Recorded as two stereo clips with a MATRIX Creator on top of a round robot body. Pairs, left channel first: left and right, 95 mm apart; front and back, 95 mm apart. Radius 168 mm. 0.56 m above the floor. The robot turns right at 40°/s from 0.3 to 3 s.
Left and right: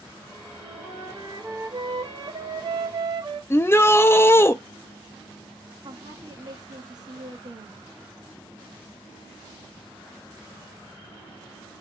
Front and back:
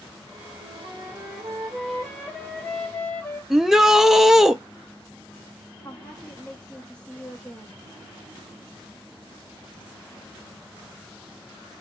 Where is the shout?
100° left, 0.6 m.